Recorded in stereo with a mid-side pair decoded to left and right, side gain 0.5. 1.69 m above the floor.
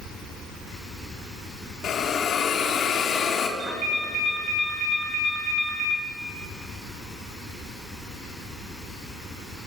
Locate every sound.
1.8 s a hiss: 55° left, 3.5 m
3.6 s a ringtone: 60° right, 6 m